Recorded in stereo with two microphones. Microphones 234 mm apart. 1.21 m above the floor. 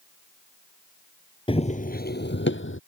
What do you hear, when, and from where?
1.5 s running footsteps: 20° left (ahead or behind); by 2.8 s 60° left (ahead or behind)